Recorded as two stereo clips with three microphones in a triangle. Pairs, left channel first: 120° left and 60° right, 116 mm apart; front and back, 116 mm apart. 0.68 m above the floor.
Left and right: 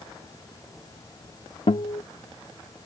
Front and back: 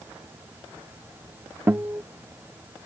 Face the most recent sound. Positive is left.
turn(degrees=115)